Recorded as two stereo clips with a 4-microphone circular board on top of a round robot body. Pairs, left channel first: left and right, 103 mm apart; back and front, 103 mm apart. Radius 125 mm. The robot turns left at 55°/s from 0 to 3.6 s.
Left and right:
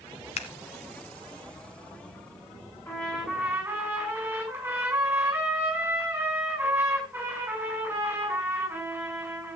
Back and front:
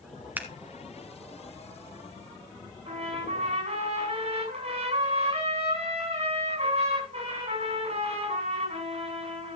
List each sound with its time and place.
0.4 s scissors: 75° left, 1.1 m; by 0.5 s 70° left, 1.1 m
2.9 s a trumpet: 25° left, 8.5 m; by 9.6 s 20° right, 8.5 m